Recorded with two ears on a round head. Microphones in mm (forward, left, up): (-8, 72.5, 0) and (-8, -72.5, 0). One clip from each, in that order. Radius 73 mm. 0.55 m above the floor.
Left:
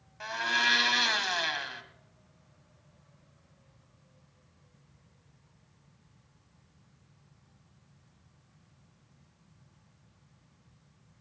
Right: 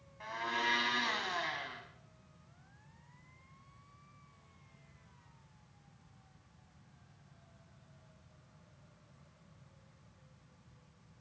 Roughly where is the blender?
Left.